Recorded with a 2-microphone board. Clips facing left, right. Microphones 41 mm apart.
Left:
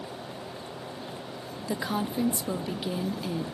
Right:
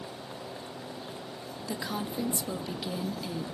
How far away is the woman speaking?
About 0.7 m.